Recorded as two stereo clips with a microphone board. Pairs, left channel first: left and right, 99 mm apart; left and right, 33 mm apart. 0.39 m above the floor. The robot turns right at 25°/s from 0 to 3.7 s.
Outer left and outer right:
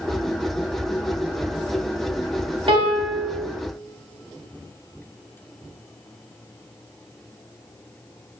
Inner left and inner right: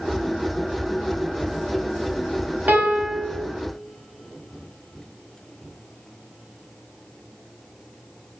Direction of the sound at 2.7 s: 70° right (ahead or behind).